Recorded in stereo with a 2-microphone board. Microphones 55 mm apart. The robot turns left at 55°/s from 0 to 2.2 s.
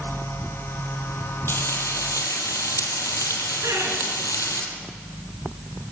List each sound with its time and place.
1.5 s frying: 135° left, 3 m; by 4.6 s 95° left, 3 m
3.6 s laughter: 75° right (ahead or behind), 8.5 m